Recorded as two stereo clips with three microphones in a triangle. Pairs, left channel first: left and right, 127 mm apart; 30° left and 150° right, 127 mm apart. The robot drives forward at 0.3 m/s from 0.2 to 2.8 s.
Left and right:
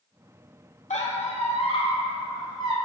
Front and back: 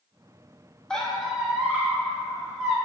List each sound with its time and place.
0.9 s a squeak: 115° left, 0.6 m; by 2.7 s 145° left, 1.0 m